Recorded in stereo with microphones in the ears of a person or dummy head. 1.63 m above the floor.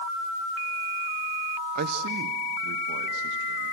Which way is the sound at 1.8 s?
45° right (ahead or behind).